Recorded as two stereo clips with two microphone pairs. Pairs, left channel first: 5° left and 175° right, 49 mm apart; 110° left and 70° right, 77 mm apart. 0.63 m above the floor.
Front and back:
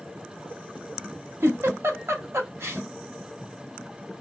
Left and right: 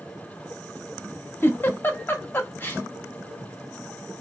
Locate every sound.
1.4 s a giggle: 170° left, 0.6 m